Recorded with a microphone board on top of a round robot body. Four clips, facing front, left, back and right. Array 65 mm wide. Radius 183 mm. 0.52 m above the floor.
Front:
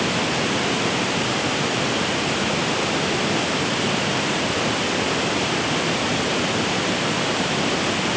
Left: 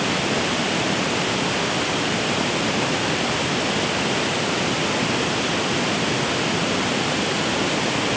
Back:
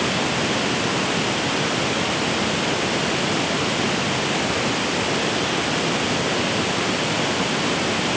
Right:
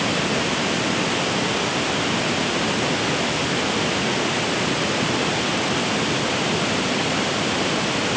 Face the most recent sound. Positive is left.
No sound to turn to.